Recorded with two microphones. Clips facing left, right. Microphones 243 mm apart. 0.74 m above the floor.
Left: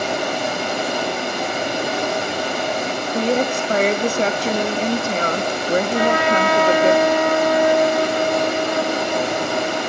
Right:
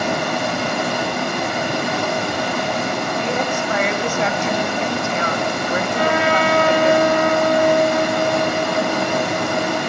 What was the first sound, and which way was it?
Running water, 65° right (ahead or behind).